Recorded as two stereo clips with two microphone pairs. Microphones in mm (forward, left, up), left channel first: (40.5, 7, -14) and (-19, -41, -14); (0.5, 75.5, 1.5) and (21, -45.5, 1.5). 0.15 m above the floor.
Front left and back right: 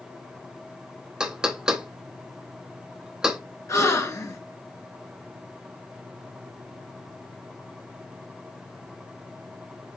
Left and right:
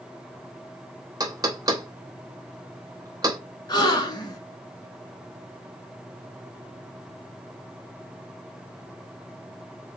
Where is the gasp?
60° left, 0.9 m.